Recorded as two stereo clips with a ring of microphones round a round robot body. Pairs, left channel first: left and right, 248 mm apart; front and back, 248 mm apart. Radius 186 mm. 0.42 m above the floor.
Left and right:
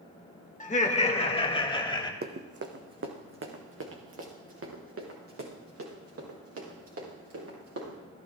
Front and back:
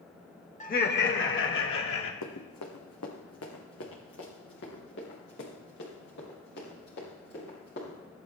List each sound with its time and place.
0.6 s laughter: 45° left, 1.4 m; by 2.1 s 20° left, 3 m
2.2 s running footsteps: 40° right, 1.6 m; by 8.0 s 65° right, 7 m